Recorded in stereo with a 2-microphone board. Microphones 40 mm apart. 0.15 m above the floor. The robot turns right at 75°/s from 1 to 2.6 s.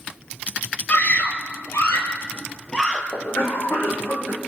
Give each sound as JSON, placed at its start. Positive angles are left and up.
{"t": 0.9, "sound": "a scream", "side_deg": 35, "distance_m": 4.0}
{"t": 3.1, "sound": "a cough", "side_deg": 75, "distance_m": 6.0}